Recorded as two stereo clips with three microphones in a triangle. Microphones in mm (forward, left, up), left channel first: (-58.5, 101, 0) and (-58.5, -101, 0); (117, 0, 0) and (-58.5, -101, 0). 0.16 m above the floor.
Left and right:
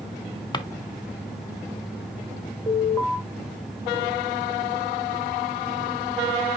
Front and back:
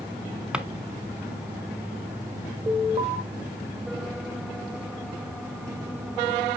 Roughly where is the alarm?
Behind.